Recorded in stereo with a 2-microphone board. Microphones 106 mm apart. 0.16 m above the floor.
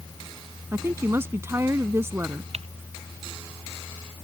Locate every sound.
0.7 s a woman speaking: 25° right (ahead or behind)
2.5 s typing on a keyboard: 80° right